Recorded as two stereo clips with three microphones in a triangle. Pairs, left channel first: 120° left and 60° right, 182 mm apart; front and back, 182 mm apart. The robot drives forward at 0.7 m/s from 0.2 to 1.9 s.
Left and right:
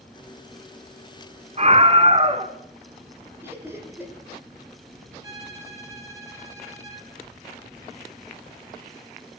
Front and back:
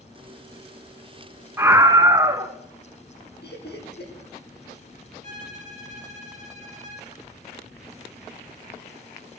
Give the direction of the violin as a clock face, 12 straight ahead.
4 o'clock.